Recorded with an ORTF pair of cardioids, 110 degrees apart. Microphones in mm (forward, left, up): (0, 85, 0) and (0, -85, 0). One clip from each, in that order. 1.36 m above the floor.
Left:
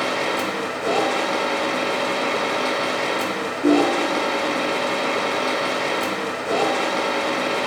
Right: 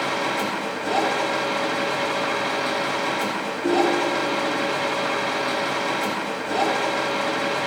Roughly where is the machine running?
Ahead left.